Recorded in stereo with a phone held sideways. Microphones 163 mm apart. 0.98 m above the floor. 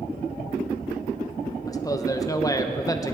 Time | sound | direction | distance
1.7 | a man speaking | 20° left (ahead or behind) | 0.9 m